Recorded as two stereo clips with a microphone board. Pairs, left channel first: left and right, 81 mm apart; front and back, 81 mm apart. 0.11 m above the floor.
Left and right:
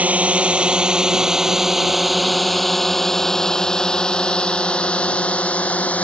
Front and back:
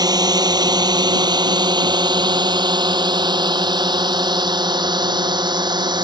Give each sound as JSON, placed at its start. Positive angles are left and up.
{"t": 0.0, "sound": "a drone", "azimuth_deg": -160}